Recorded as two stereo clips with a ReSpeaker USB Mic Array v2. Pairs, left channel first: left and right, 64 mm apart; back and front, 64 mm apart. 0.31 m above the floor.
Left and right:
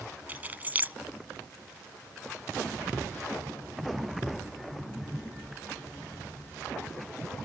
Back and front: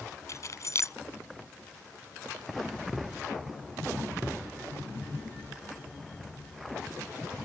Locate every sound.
0.3 s keys jangling: 150° right